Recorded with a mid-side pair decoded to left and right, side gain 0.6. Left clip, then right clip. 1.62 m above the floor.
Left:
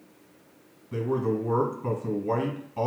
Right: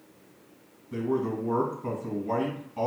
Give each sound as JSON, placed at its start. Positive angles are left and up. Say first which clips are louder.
{"t": 0.9, "sound": "a man speaking", "louder": "left 2 dB", "azimuth_deg": 5, "distance_m": 2.0}